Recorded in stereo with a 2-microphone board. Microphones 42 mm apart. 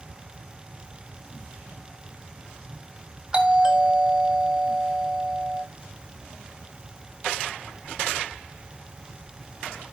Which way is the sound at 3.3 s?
20° right (ahead or behind).